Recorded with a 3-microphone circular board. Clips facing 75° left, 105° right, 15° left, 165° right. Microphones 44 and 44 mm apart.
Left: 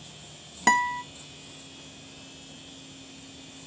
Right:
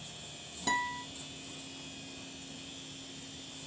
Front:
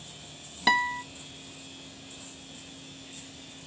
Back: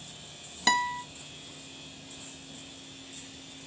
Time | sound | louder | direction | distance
0.7 | a guitar | left 10 dB, front 2 dB | 95° left | 0.5 m